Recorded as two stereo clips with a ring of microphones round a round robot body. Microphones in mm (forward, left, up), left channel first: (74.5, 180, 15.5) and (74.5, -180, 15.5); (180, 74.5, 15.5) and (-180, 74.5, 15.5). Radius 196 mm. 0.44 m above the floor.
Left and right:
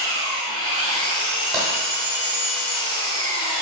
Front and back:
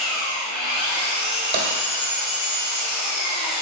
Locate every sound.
0.0 s an engine running: 35° left, 2 m
1.5 s tapping: straight behind, 0.9 m